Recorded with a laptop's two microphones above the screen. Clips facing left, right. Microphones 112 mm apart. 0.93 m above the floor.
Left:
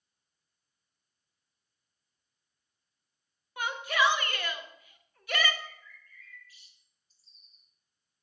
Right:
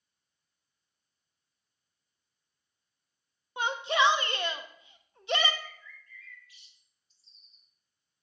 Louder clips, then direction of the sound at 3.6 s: Right 2 dB; 25° right (ahead or behind).